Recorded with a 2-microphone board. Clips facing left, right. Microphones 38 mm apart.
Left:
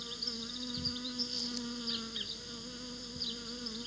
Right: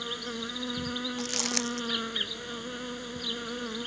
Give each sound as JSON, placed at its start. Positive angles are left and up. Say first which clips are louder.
{"t": 0.0, "sound": "an insect", "louder": "right 8 dB", "side_deg": -50}
{"t": 1.2, "sound": "crumpling", "louder": "right 8 dB", "side_deg": -80}